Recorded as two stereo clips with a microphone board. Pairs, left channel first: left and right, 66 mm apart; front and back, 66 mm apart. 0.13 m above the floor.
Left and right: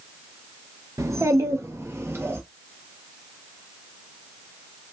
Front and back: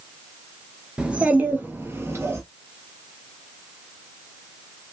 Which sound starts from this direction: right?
A child speaking, at 1.0 s.